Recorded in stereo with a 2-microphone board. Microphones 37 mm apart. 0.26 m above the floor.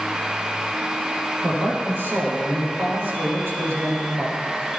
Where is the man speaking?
80° right, 8 m; by 4.4 s 75° right (ahead or behind), 7.5 m.